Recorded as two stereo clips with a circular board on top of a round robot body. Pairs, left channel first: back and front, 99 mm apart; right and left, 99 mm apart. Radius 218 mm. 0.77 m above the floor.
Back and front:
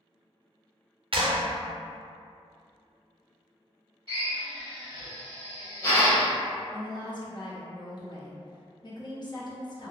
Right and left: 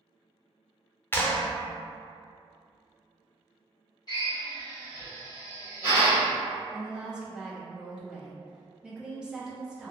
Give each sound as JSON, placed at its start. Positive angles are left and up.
{"t": 1.1, "sound": "a clap", "azimuth_deg": -25, "distance_m": 0.7}
{"t": 4.1, "sound": "a drill", "azimuth_deg": -150, "distance_m": 1.9}
{"t": 6.7, "sound": "a woman speaking", "azimuth_deg": 170, "distance_m": 1.0}